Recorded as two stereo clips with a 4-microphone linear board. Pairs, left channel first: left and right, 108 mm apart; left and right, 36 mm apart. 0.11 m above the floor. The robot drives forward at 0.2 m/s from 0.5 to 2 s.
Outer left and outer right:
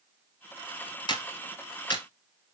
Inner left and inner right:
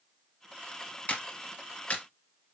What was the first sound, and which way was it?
A clap, 40° left (ahead or behind).